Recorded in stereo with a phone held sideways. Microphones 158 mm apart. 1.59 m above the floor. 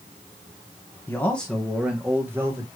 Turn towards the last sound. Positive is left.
turn(degrees=-20)  # may be behind; listen again after turning